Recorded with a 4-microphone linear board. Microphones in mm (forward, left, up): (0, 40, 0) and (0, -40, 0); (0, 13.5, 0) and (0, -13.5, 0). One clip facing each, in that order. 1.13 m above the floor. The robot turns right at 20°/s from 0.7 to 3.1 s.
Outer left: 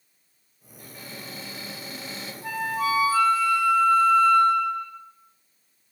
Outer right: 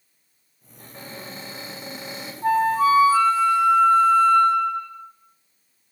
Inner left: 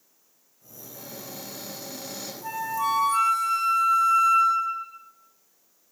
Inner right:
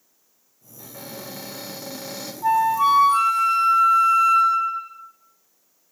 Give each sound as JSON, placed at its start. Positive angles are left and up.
{"t": 0.8, "sound": "a cupboard door", "azimuth_deg": -45, "distance_m": 3.0}
{"t": 2.4, "sound": "a flute", "side_deg": -40, "distance_m": 1.7}